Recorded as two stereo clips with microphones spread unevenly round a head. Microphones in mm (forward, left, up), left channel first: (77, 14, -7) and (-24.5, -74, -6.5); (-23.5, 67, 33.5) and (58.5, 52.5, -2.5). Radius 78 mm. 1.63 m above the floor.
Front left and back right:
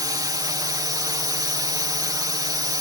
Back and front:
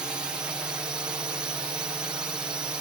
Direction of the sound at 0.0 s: 80° right.